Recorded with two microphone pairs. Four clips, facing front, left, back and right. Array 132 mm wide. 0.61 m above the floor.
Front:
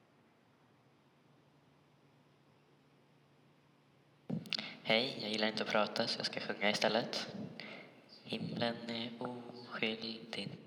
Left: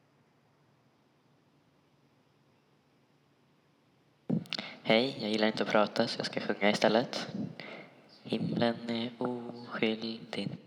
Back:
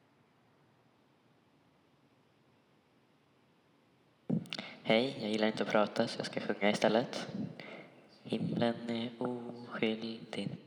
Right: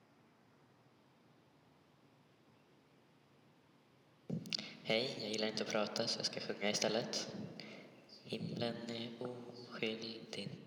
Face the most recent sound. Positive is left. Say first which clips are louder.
# left 11 dB, back 6 dB
turn(degrees=100)